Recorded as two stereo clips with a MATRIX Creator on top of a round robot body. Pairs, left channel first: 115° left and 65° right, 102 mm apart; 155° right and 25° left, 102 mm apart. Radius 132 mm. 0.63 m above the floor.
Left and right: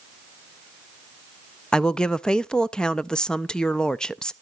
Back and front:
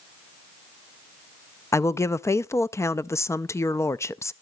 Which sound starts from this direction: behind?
A woman speaking, at 1.7 s.